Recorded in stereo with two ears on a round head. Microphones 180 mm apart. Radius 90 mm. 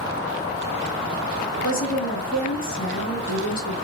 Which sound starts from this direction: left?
A woman speaking, at 1.6 s.